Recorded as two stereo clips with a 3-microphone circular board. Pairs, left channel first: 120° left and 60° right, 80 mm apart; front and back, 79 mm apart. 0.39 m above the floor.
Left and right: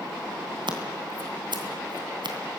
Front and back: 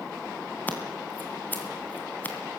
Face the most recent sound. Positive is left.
turn(degrees=-65)